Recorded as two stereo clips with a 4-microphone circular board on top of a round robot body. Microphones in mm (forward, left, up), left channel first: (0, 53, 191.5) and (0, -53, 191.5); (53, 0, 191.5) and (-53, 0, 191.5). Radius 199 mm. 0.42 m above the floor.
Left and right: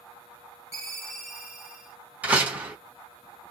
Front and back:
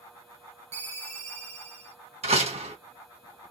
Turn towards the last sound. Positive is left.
turn(degrees=-165)